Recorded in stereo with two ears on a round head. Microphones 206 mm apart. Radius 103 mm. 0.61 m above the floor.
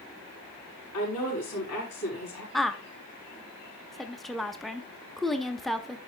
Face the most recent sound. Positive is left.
turn(degrees=0)  # may be behind; listen again after turning